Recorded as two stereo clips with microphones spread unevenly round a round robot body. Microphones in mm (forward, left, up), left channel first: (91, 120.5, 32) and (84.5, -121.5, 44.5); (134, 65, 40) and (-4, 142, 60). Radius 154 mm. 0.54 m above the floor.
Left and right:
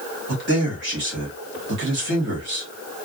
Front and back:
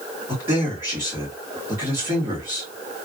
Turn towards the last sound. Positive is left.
turn(degrees=-130)